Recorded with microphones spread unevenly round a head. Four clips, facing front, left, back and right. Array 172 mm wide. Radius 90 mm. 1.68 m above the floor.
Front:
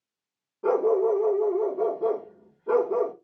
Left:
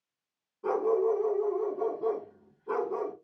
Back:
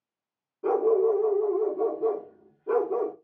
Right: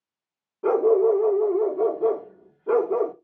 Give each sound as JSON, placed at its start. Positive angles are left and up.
{"t": 0.6, "sound": "a dog barking", "azimuth_deg": -80, "distance_m": 1.8}